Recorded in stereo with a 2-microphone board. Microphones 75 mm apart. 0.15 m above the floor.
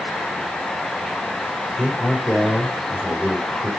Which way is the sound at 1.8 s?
5° left (ahead or behind).